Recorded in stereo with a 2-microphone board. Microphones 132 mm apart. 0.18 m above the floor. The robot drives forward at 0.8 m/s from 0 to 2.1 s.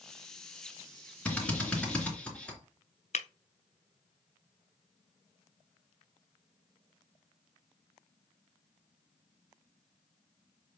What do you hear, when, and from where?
1.2 s a drill: 10° left (ahead or behind), 2.5 m
3.1 s breaking glass: 60° left (ahead or behind), 0.6 m